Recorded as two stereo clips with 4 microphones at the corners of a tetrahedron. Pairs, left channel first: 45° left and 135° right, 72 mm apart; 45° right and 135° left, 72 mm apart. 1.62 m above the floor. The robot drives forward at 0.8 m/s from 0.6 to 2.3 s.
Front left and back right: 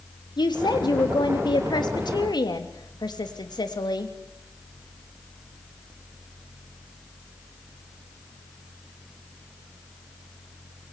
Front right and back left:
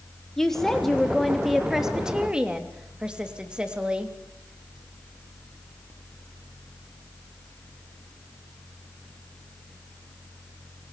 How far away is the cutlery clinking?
No cutlery clinking in this recording.